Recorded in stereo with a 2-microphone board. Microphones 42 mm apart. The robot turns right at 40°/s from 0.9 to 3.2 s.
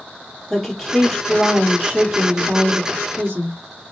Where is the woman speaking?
Straight behind, 2.5 m; by 3.6 s 90° right, 2.5 m.